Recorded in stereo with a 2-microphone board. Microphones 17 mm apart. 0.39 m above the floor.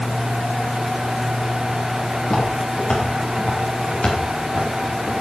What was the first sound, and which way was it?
Footsteps, 80° left.